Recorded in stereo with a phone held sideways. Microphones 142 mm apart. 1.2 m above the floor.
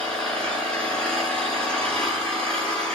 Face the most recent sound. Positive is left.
turn(degrees=5)  # may be behind; listen again after turning